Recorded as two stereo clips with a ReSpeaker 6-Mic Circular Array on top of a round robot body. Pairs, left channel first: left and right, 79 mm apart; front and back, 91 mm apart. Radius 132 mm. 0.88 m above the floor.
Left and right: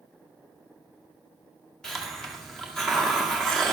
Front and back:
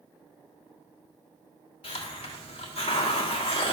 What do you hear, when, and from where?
1.8 s a hiss: 5° left, 1.6 m